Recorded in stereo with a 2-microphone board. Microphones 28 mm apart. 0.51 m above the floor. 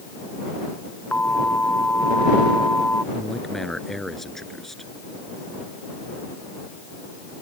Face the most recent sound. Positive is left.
turn(degrees=15)  # may be behind; listen again after turning